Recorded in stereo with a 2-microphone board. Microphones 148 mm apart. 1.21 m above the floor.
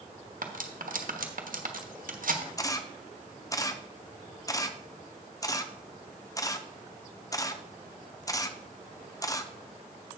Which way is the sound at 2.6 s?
25° left (ahead or behind).